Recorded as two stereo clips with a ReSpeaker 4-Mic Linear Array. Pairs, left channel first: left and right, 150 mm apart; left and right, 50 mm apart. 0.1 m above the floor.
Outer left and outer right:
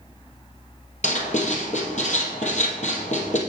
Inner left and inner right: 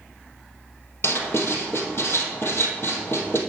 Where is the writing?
55° left (ahead or behind), 1.9 m.